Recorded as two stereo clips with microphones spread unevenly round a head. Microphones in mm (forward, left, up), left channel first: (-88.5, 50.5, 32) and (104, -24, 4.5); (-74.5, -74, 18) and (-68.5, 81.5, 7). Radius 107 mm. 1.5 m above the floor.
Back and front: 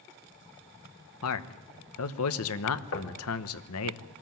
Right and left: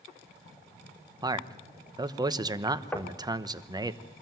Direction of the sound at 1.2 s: 155° left.